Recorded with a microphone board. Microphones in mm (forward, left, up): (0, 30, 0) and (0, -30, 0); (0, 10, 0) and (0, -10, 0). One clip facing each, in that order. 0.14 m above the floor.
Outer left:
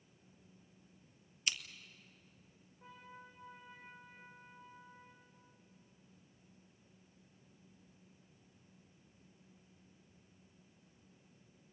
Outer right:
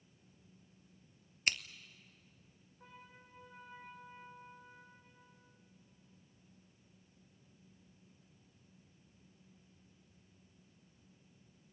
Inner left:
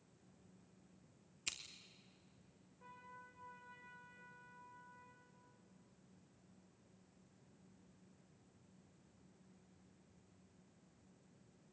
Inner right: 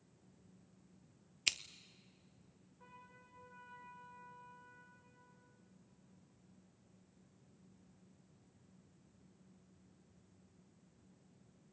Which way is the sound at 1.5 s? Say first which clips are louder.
Outer right 4 dB, inner right 10 dB; 50° right (ahead or behind).